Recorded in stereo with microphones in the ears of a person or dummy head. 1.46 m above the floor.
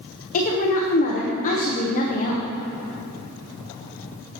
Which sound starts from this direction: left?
A woman speaking, at 0.3 s.